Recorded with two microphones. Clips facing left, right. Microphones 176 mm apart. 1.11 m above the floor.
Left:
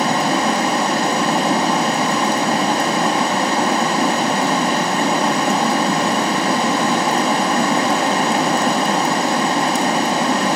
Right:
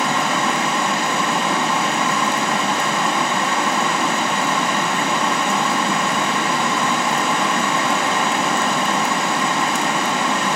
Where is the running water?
35° left (ahead or behind), 1.5 m.